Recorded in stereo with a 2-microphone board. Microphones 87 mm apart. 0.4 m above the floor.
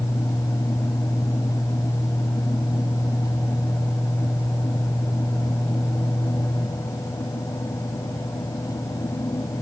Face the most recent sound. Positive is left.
No sound to turn to.